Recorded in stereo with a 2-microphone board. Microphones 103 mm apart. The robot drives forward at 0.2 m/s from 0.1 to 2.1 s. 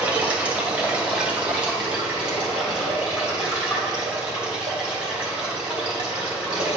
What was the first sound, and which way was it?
Running water, 15° right (ahead or behind).